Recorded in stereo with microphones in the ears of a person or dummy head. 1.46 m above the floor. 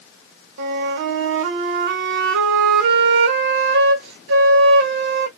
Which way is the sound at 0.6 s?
65° right (ahead or behind).